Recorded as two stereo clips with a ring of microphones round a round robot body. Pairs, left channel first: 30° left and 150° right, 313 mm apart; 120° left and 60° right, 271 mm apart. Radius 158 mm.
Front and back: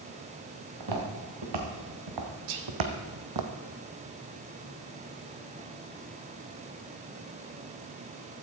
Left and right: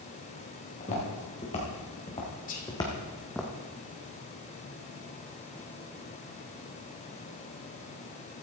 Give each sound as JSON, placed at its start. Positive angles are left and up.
{"t": 0.8, "sound": "footsteps", "azimuth_deg": -170, "distance_m": 4.0}
{"t": 2.5, "sound": "whispering", "azimuth_deg": -175, "distance_m": 1.8}